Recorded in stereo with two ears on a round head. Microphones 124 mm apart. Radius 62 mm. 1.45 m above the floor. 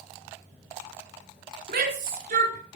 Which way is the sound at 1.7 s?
75° right (ahead or behind).